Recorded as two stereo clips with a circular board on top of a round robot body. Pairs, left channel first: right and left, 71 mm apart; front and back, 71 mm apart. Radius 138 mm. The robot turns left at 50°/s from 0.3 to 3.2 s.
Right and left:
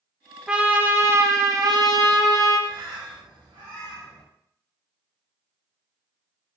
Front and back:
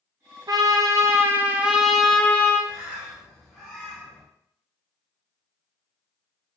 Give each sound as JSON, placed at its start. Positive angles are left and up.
{"t": 0.5, "sound": "a trumpet", "azimuth_deg": 165, "distance_m": 0.5}
{"t": 2.7, "sound": "a bird", "azimuth_deg": 115, "distance_m": 0.6}